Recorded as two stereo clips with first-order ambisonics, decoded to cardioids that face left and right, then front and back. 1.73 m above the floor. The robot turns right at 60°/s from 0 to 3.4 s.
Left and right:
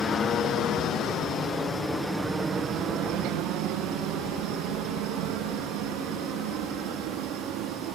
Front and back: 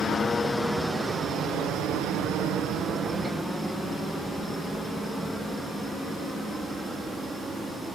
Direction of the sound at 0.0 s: 45° left.